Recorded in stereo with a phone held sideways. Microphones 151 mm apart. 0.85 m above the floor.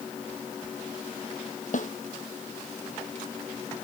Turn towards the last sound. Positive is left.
turn(degrees=60)  # may be behind; listen again after turning